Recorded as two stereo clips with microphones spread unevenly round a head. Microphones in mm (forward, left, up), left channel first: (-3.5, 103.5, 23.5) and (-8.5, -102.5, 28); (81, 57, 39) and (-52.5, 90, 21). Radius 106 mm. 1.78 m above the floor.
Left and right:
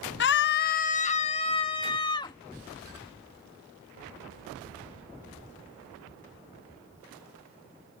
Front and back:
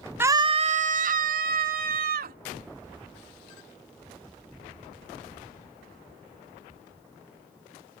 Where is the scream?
90° left; by 2.4 s 160° left.